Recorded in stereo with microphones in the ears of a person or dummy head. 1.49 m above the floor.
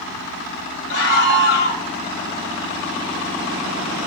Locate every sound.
0.9 s a scream: 50° left (ahead or behind), 1.9 m